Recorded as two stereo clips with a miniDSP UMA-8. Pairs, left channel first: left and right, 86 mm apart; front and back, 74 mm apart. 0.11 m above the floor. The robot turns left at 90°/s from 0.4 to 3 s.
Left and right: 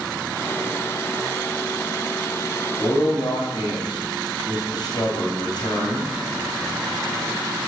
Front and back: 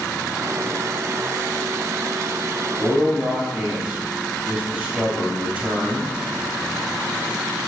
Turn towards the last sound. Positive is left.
turn(degrees=115)